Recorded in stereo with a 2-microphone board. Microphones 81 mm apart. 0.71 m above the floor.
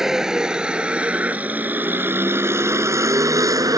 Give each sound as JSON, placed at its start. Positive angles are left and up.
{"t": 0.0, "sound": "a vehicle", "side_deg": -5}